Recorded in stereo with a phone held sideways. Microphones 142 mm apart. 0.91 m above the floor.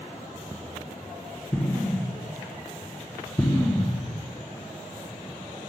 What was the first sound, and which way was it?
An explosion, 15° left (ahead or behind).